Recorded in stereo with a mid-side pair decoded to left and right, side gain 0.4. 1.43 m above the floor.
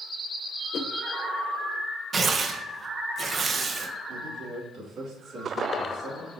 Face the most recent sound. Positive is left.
turn(degrees=-65)